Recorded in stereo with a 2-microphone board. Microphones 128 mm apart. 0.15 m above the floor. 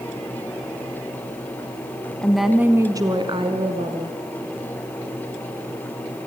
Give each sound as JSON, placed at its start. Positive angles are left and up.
{"t": 2.2, "sound": "a woman speaking", "side_deg": 5, "distance_m": 1.0}